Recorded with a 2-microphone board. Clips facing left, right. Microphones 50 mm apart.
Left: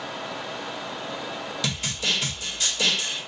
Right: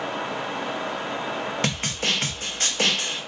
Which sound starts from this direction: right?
A snare drum, at 1.6 s.